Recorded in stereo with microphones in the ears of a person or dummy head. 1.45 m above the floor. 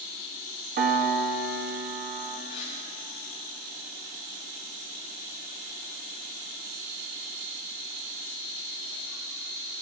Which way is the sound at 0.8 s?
45° right (ahead or behind).